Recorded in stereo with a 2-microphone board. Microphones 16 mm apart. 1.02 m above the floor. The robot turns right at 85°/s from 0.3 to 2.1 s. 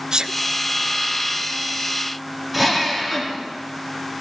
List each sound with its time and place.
0.1 s a sneeze: 45° right (ahead or behind), 0.7 m
2.5 s a drill: 5° right (ahead or behind), 2.5 m